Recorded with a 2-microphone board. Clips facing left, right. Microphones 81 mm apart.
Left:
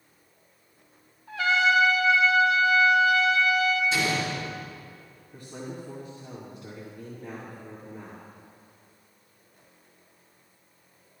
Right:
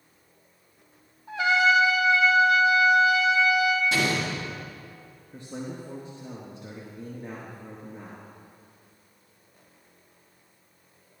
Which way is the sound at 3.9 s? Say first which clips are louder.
Right 1 dB; 75° right (ahead or behind).